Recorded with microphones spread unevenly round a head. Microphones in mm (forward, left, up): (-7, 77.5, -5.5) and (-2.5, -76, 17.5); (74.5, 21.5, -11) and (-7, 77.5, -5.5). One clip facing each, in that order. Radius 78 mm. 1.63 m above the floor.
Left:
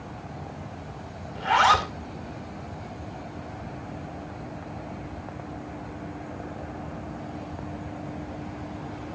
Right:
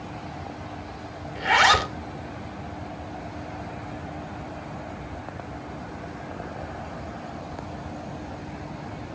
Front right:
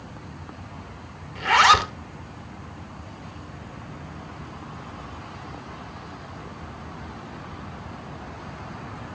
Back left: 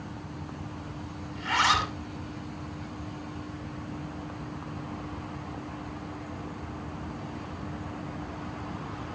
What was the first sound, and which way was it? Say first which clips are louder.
A zipper: even, front right 9 dB; 25° right.